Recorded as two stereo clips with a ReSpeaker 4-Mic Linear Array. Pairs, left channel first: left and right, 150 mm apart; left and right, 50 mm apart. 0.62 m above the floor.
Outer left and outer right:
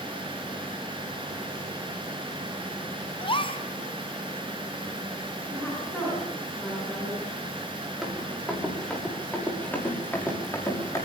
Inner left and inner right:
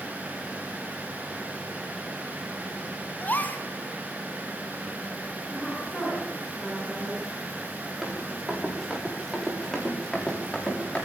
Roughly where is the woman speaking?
Centre.